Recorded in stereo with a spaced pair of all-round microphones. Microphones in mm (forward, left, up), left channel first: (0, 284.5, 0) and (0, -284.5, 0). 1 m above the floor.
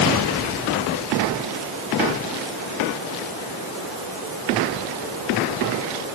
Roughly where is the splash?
No splash in this recording.